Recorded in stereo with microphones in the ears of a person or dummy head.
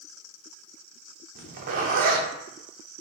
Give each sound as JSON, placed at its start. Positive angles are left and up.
{"t": 1.4, "sound": "a zipper", "side_deg": -45, "distance_m": 0.6}